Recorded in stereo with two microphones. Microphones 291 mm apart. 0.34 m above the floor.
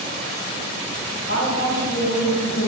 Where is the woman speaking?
55° left (ahead or behind), 2.5 m.